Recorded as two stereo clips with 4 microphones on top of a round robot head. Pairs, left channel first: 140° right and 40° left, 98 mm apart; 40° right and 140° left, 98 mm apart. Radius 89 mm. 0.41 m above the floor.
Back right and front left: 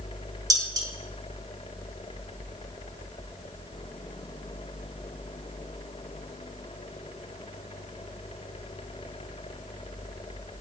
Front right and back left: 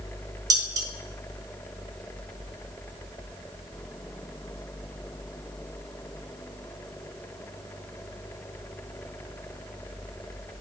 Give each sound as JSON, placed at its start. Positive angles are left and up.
{"t": 0.5, "sound": "dishes clattering", "azimuth_deg": 90, "distance_m": 1.3}